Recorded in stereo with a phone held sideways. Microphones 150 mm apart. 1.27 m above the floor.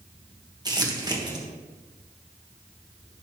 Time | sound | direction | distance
0.7 | crumpling | 25° right (ahead or behind) | 1.6 m